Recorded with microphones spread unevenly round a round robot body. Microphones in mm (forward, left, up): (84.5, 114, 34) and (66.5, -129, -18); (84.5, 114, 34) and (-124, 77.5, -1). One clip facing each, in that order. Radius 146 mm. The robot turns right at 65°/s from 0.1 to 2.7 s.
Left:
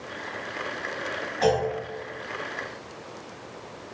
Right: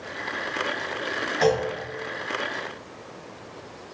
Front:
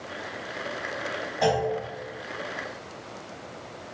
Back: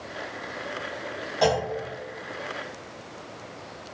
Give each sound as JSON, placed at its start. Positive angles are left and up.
{"t": 1.4, "sound": "a clunk", "azimuth_deg": -125, "distance_m": 1.3}